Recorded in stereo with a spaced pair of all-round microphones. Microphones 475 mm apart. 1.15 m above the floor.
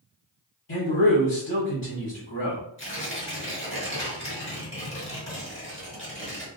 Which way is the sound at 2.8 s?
15° left (ahead or behind).